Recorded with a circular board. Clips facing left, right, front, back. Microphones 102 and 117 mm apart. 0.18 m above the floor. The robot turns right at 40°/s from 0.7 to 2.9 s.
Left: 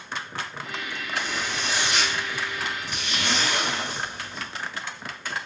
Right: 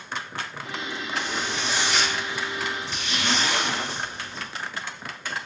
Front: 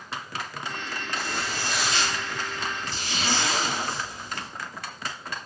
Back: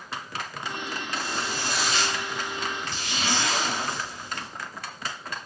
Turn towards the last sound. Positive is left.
turn(degrees=-125)